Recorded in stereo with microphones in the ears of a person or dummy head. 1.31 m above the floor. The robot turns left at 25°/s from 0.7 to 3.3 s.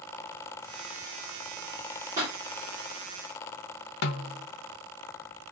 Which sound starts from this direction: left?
A snare drum, at 4.0 s.